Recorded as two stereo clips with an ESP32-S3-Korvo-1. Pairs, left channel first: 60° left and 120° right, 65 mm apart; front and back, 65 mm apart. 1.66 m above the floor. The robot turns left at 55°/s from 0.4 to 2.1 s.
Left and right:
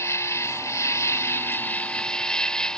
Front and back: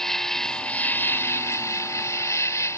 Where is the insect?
80° left; by 2.8 s 15° right.